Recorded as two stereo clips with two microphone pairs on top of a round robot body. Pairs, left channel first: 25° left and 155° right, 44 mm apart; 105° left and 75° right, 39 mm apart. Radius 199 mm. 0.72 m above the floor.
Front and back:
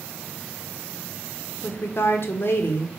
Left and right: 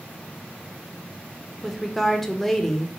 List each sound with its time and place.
1.6 s a woman speaking: 25° left, 0.7 m